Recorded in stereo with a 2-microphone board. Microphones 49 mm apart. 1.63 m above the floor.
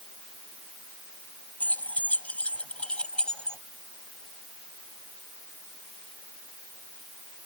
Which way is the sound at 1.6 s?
40° left (ahead or behind).